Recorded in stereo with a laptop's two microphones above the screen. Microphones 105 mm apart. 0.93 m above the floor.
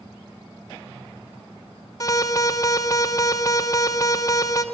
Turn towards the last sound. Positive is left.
turn(degrees=35)  # may be behind; listen again after turning